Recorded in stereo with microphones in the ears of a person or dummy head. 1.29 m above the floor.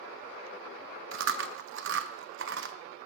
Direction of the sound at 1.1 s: 65° right (ahead or behind).